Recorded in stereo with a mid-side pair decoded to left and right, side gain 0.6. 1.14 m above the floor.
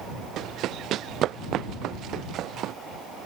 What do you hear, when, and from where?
0.4 s running footsteps: 55° right